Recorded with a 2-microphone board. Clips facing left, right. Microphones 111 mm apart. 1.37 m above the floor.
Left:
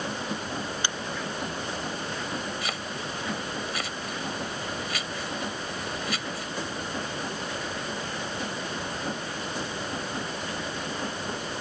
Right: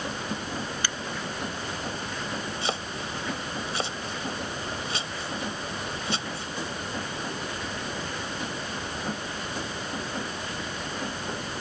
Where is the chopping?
30° right (ahead or behind).